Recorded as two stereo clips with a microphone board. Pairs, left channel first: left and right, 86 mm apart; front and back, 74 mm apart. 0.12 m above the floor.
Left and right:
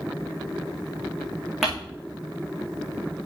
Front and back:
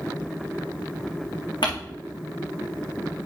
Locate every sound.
1.6 s crumpling: 5° right, 4.5 m